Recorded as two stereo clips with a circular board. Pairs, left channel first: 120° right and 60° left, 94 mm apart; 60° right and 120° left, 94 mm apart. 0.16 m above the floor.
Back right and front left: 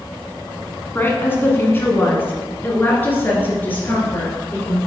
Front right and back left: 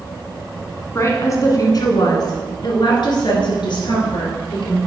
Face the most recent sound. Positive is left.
turn(degrees=-50)